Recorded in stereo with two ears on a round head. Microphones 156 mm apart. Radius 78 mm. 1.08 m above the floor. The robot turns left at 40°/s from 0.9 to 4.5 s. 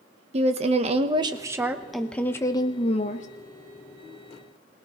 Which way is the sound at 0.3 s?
140° right.